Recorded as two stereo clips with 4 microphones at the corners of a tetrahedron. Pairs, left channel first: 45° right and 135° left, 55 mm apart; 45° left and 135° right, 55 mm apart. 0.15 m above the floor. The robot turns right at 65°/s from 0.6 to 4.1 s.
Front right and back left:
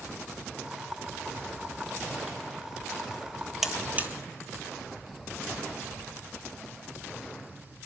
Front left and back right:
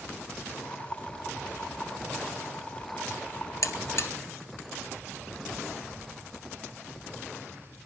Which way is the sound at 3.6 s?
50° left.